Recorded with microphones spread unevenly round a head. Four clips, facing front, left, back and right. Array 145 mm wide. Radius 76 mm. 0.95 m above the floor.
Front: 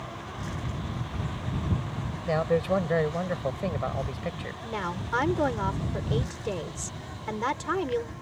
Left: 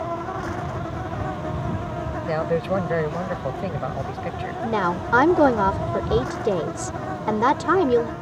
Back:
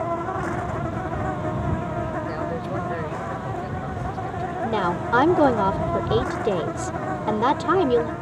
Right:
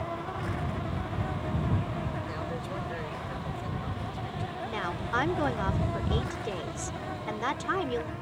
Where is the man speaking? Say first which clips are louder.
Left 13 dB, front 2 dB; 60° left.